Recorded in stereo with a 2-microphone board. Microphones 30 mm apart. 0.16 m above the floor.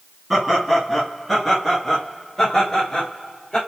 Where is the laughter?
10° right (ahead or behind), 2 m; by 3.6 s 20° left (ahead or behind), 3.5 m.